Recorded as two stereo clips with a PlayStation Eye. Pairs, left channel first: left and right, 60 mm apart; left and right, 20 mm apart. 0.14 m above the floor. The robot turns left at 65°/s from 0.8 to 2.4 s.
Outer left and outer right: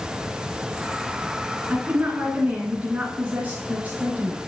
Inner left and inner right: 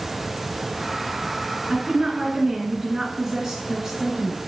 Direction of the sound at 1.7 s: 20° right (ahead or behind).